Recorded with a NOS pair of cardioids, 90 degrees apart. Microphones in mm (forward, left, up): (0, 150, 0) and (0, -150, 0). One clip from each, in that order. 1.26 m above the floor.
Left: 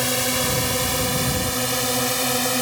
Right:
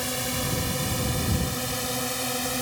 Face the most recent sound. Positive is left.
turn(degrees=45)